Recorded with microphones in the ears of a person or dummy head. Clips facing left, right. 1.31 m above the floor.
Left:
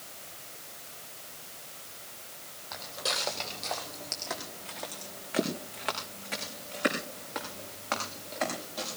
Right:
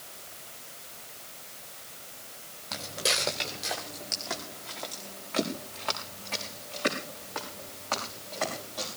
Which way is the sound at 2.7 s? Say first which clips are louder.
Right 4 dB; 40° right (ahead or behind).